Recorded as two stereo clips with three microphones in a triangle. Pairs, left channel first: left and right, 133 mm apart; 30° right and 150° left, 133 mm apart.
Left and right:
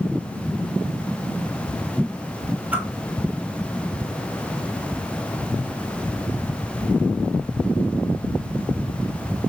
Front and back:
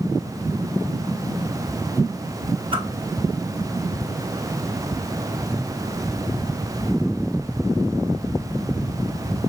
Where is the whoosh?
165° right, 0.9 m.